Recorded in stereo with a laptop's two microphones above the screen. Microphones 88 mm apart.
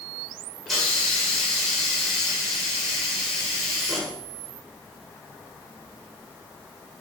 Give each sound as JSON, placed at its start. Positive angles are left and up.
{"t": 0.7, "sound": "a hiss", "side_deg": 0, "distance_m": 1.3}